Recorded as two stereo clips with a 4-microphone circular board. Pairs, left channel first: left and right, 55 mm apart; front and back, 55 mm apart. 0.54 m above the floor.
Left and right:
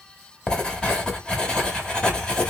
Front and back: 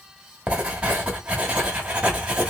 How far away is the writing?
About 1.0 m.